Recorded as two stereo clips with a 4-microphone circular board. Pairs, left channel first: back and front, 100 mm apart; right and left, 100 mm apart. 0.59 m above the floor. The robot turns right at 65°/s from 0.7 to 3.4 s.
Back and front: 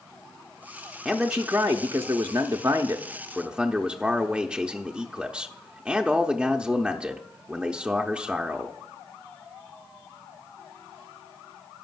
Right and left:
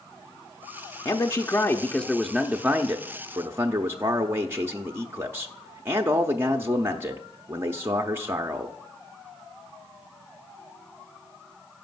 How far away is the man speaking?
About 0.6 m.